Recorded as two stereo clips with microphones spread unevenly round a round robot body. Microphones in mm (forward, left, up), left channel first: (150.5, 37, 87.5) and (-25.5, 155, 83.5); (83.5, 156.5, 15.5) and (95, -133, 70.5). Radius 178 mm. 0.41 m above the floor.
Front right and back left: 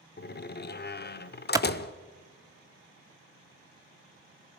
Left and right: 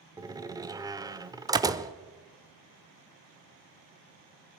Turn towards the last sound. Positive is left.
turn(degrees=-170)